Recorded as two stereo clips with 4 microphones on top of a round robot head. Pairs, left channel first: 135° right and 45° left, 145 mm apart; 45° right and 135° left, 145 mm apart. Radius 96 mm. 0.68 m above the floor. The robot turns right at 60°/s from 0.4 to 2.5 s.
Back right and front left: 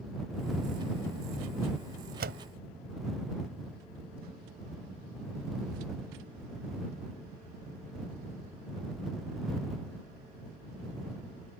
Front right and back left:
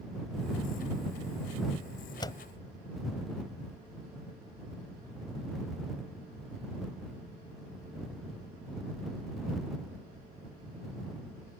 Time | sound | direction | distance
2.2 | a door slam | 20° left | ?